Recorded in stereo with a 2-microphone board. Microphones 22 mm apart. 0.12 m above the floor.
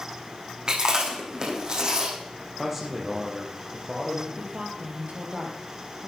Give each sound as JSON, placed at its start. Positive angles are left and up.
{"t": 0.7, "sound": "chewing", "side_deg": -40, "distance_m": 4.0}
{"t": 2.6, "sound": "a man speaking", "side_deg": -5, "distance_m": 4.0}
{"t": 4.4, "sound": "a woman speaking", "side_deg": -55, "distance_m": 2.5}